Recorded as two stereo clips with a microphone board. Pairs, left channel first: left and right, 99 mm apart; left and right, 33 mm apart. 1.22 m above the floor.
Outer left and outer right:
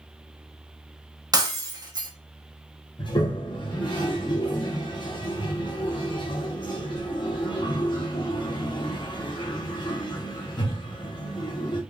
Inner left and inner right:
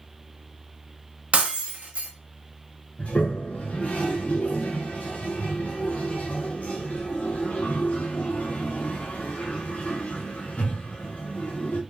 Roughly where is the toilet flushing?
Left.